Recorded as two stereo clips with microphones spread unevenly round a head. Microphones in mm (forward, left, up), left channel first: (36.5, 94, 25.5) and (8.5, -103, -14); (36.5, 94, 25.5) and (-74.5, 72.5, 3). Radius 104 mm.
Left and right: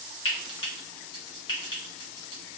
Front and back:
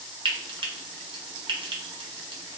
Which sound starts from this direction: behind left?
Frying, at 0.2 s.